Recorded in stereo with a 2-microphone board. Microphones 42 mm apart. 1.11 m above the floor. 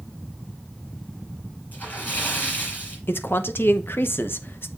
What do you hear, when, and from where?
1.7 s a splash: 45° left (ahead or behind), 6.5 m
3.1 s a man speaking: 65° left (ahead or behind), 1.0 m